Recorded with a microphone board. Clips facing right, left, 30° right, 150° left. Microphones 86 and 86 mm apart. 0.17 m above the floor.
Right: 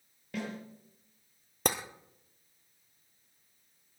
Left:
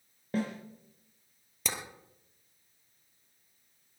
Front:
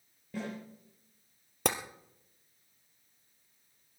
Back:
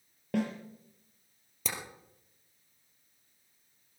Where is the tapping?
55° right, 1.6 m.